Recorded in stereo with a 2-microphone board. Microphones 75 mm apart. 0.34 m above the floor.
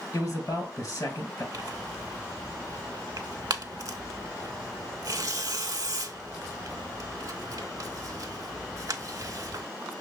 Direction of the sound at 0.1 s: 45° left (ahead or behind).